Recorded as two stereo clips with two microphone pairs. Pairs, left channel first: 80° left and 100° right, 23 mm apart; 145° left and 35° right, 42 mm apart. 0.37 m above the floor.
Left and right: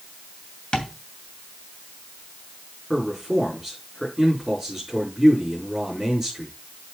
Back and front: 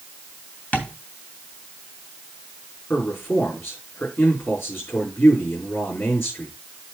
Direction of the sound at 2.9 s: 165° left.